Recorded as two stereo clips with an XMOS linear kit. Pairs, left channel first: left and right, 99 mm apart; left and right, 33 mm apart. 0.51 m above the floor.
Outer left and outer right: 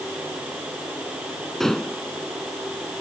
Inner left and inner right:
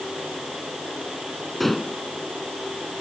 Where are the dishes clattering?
5° left (ahead or behind).